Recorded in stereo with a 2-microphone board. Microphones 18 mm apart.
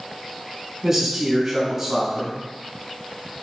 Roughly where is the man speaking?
Centre.